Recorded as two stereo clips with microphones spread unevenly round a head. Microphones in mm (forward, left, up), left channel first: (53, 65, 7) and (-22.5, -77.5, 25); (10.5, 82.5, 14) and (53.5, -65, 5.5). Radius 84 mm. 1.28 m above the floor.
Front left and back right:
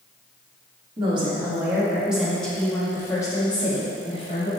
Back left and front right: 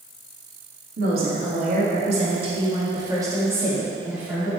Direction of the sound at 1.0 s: 60° right.